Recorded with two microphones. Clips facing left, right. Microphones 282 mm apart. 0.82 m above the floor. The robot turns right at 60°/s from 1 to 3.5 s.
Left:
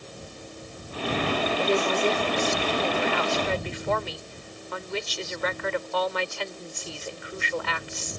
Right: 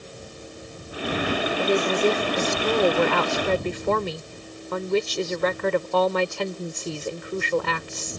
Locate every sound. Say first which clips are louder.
1.6 s a woman speaking: right 4 dB; 170° right; by 8.2 s 55° right